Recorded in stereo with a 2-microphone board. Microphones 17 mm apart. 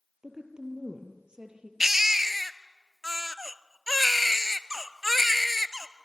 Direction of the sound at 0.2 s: 55° right (ahead or behind).